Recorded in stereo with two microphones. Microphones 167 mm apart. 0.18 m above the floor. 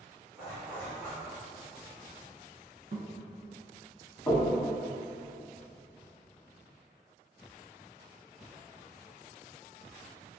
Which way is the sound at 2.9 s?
60° right (ahead or behind).